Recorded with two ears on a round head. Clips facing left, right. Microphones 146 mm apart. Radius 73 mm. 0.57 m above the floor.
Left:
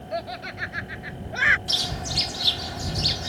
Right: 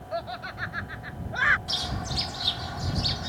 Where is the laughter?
25° left (ahead or behind).